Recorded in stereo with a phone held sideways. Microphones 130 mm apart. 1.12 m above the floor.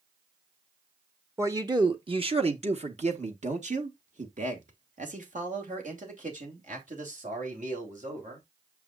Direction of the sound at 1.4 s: 25° right (ahead or behind).